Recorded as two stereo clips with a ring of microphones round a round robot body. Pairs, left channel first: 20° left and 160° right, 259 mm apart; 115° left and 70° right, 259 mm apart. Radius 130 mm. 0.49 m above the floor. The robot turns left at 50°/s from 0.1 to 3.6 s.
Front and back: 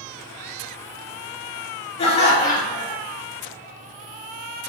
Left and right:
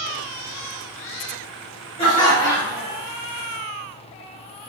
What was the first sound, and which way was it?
Laughter, 65° left.